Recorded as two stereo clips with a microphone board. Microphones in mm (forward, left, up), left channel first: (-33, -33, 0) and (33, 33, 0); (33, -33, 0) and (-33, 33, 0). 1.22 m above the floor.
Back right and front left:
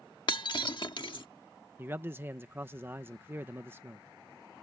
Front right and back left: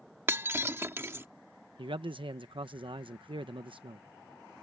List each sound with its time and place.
0.3 s breaking glass: 165° right
1.8 s a man speaking: 110° left